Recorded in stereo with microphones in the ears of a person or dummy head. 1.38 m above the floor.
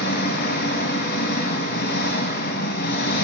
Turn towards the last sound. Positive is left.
turn(degrees=55)  # may be behind; listen again after turning